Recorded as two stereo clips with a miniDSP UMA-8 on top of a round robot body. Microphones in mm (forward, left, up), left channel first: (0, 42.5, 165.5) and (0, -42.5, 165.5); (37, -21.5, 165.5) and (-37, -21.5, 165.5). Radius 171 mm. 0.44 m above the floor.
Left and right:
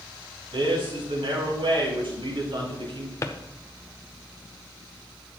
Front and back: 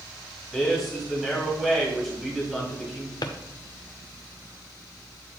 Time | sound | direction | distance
0.5 | a man speaking | 90° right | 4.5 m
3.2 | a drawer | 30° left | 0.5 m